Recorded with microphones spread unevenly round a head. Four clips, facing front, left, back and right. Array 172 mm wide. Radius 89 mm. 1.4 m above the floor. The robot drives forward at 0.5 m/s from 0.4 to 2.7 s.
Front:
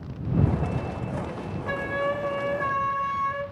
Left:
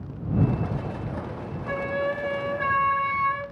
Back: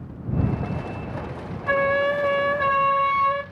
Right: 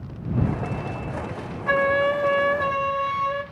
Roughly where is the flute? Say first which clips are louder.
Right 7 dB, back 7 dB; behind right.